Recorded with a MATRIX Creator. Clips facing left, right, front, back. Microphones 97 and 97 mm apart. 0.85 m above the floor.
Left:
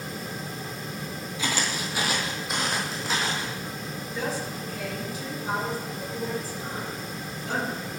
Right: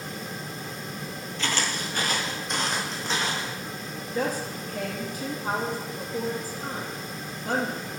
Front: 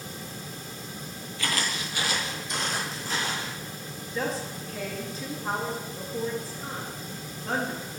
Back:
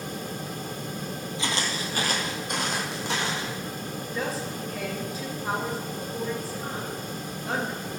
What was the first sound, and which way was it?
Footsteps, 150° left.